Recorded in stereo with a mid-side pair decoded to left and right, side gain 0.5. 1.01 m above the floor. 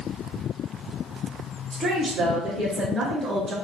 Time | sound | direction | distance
1.7 | a woman speaking | 65° right | 1.8 m